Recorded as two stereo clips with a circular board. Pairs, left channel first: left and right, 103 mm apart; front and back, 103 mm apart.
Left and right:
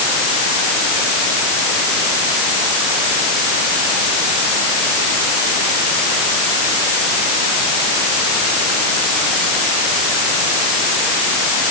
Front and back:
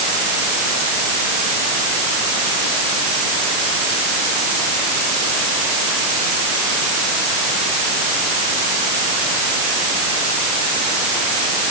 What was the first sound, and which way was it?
Only background noise.